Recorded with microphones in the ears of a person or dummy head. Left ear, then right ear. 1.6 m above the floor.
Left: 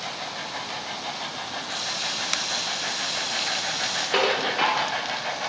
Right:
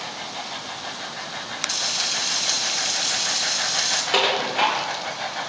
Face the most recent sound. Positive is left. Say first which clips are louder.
# right 1 dB
turn(degrees=-10)  # may be behind; listen again after turning